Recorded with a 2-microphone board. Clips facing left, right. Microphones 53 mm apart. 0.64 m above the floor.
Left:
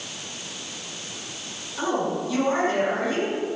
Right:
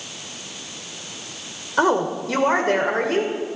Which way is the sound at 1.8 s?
70° right (ahead or behind).